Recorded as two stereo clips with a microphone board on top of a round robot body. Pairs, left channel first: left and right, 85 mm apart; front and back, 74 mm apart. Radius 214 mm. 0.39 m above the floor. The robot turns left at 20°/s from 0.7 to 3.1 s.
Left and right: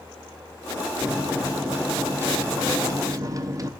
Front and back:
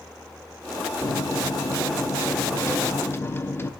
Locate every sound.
1.0 s a microwave: 10° right, 0.9 m; by 3.7 s 50° right, 0.9 m